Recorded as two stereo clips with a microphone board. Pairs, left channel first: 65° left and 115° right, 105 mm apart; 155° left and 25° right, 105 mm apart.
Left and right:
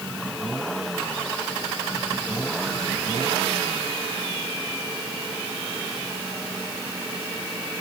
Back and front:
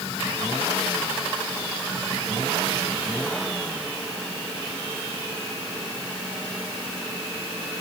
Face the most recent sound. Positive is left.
No sound to turn to.